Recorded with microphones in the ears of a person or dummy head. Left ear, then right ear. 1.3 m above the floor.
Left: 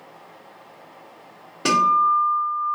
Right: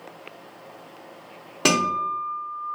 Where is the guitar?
15° right (ahead or behind), 0.9 m.